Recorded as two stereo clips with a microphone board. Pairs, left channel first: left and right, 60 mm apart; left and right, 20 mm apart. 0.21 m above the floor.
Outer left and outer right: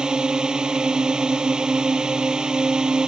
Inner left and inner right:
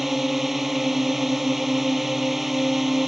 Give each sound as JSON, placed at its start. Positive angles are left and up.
{"t": 0.0, "sound": "a drone", "side_deg": -15}